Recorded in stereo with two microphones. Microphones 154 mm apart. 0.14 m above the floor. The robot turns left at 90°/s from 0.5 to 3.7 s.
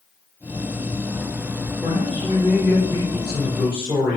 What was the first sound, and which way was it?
A man speaking, 160° left.